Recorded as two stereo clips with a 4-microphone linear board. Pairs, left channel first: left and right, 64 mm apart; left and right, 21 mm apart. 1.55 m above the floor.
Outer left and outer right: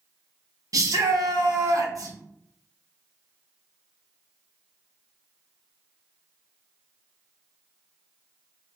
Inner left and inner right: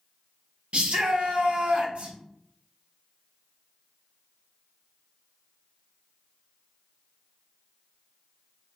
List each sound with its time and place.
0.7 s a shout: 65° right (ahead or behind), 1.0 m